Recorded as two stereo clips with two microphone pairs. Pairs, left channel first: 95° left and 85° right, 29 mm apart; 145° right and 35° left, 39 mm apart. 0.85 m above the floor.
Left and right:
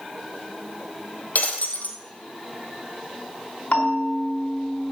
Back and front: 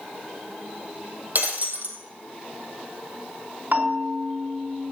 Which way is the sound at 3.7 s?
65° left.